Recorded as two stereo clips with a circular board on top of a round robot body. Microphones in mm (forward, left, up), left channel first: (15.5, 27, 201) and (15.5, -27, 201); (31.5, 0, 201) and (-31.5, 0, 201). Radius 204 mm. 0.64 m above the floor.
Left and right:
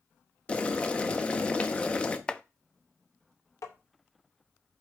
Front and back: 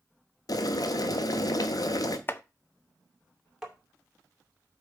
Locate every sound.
0.5 s boiling: 20° left, 1.2 m
2.3 s chopping: 30° left, 0.9 m
3.6 s tapping: 95° left, 2.5 m